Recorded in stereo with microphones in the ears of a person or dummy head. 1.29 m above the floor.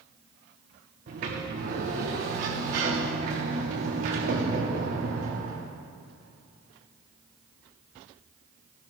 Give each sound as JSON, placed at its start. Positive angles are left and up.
{"t": 1.1, "sound": "a sliding door", "side_deg": -40, "distance_m": 1.0}